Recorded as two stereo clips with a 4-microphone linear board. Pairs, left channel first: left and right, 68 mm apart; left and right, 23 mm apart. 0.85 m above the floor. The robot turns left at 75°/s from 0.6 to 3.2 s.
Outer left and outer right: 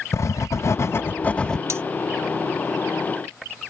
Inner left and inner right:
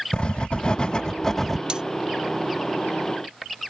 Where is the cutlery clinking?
45° right (ahead or behind); by 1.8 s 35° right (ahead or behind).